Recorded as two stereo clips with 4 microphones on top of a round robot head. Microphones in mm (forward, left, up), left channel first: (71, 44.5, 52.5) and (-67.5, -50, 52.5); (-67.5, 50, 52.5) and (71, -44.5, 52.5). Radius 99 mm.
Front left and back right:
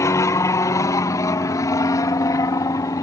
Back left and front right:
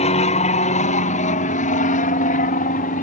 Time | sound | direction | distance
0.0 | an aircraft | 105° left | ?